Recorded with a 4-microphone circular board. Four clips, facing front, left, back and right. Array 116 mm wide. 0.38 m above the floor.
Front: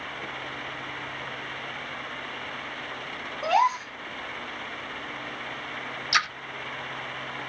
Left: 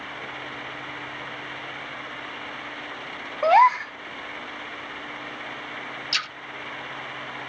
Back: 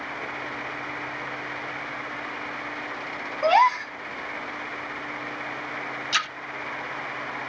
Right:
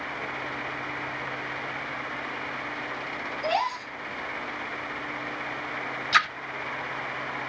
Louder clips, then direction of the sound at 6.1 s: Right 13 dB, front 3 dB; 80° right.